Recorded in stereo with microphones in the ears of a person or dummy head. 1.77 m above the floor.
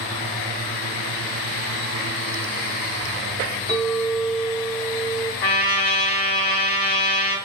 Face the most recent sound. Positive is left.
turn(degrees=55)  # may be behind; listen again after turning